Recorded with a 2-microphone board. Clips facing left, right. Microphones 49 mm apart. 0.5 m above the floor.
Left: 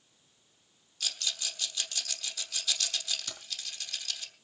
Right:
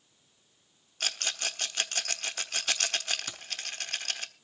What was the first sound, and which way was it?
A rattle, 45° right (ahead or behind).